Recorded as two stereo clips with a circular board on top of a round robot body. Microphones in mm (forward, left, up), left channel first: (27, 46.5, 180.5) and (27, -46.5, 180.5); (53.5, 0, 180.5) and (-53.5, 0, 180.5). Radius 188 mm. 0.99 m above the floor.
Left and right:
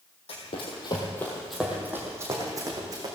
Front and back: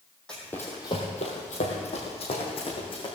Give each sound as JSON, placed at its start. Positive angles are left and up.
{"t": 0.3, "sound": "running footsteps", "azimuth_deg": 85, "distance_m": 1.7}